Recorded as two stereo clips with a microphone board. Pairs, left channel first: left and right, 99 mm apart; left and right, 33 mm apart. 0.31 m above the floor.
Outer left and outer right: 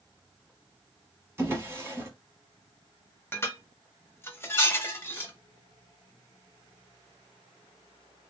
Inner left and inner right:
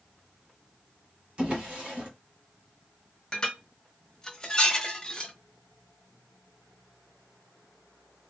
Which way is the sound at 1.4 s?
30° right (ahead or behind).